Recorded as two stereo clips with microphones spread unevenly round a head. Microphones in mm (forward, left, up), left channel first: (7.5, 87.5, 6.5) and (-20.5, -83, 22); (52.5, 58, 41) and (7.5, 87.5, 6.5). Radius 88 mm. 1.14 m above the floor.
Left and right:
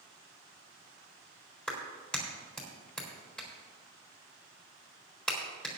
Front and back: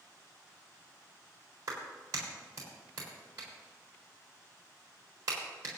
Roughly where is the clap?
Behind.